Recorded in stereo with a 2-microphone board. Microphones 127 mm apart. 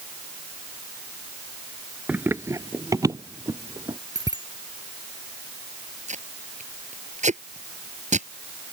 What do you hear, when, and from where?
2.1 s running footsteps: 10° right (ahead or behind); by 4.0 s 30° right (ahead or behind)
4.2 s a bicycle bell: 30° right (ahead or behind)
6.1 s tape being pulled: 70° right (ahead or behind)